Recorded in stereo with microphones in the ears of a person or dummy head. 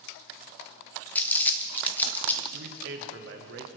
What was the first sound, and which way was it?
Crumpling, 10° left (ahead or behind).